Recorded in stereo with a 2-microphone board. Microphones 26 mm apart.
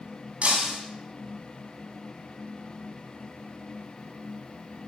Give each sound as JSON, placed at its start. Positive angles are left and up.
{"t": 0.4, "sound": "breaking glass", "side_deg": -60, "distance_m": 2.5}